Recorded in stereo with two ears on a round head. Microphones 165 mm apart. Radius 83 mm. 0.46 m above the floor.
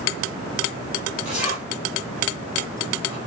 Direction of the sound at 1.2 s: 5° right (ahead or behind).